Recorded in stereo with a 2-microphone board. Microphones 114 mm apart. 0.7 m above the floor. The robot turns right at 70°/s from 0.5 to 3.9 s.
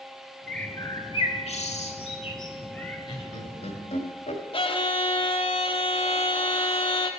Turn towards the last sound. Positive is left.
turn(degrees=50)  # may be behind; listen again after turning